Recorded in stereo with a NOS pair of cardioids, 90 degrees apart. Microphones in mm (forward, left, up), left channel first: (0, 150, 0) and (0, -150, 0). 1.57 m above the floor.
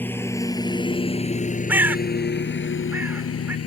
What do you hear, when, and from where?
0.0 s a lawn mower: 5° left; by 3.7 s 55° left
1.7 s a bird: 5° right